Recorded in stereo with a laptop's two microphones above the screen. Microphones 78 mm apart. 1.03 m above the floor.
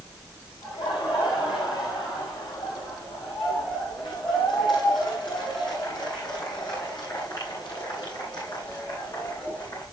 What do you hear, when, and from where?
0.6 s laughter: 85° left, 7.5 m; by 9.8 s 65° left (ahead or behind), 12 m